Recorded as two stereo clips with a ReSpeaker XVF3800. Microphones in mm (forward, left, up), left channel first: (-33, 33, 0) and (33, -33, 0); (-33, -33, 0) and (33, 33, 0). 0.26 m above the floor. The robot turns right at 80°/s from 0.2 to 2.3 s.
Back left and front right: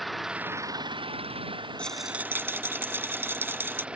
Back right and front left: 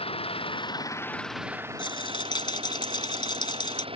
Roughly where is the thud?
I don't hear a thud.